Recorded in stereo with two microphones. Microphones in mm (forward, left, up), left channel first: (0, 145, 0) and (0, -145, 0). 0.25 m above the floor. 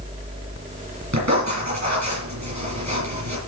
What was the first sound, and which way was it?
Writing, 70° right (ahead or behind).